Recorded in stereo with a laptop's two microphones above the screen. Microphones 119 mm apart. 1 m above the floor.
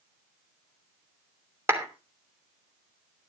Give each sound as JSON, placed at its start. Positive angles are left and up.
{"t": 1.7, "sound": "a clap", "side_deg": -20, "distance_m": 3.0}